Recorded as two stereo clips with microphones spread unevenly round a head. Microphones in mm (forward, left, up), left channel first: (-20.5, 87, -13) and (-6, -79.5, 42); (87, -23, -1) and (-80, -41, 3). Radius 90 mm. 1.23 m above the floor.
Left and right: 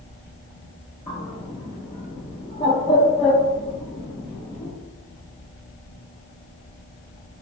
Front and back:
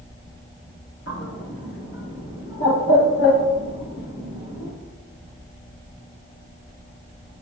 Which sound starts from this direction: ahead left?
A bird, at 1.1 s.